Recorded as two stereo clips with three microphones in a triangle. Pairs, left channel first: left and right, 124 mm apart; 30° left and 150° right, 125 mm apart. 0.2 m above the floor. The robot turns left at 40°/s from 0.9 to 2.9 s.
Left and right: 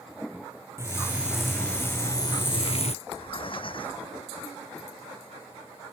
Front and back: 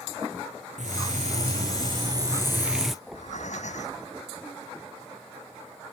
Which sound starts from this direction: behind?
Frying, at 0.8 s.